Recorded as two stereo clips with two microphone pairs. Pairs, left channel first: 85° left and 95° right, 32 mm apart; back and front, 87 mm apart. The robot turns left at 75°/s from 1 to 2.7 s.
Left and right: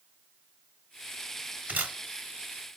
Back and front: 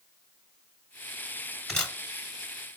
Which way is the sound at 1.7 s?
95° right.